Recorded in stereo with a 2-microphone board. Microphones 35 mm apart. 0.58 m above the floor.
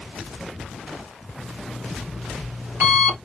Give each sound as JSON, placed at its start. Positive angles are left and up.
{"t": 1.4, "sound": "an alarm clock", "side_deg": -50, "distance_m": 3.5}